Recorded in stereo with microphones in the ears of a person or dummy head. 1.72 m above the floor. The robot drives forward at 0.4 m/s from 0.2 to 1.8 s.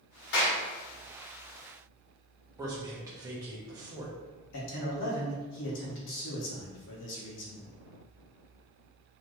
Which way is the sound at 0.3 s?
65° left (ahead or behind).